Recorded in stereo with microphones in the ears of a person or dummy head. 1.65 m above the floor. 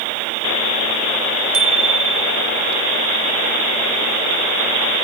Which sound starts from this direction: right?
A bicycle bell, at 1.5 s.